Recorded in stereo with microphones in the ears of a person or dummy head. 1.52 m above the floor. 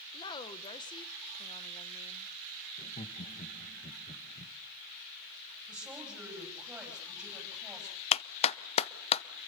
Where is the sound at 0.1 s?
25° left (ahead or behind), 1.5 m.